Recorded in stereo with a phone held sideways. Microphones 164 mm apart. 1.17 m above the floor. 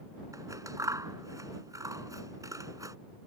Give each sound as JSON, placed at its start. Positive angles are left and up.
{"t": 0.3, "sound": "scissors", "side_deg": -20}